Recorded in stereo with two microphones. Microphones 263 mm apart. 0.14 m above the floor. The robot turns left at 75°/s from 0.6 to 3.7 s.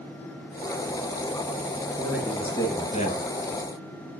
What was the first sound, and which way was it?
A man speaking, 160° right.